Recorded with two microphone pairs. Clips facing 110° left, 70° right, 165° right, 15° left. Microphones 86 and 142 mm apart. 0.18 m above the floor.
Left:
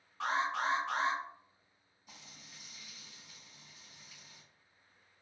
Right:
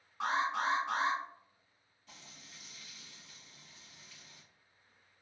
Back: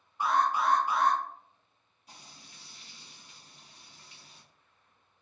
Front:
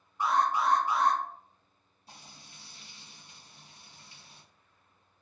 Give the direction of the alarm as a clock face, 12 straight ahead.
4 o'clock.